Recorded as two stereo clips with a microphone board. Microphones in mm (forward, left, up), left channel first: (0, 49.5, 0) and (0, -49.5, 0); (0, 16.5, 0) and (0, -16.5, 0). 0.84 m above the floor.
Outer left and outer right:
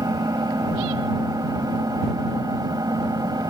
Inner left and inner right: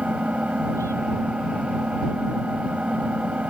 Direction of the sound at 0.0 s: 40° right (ahead or behind).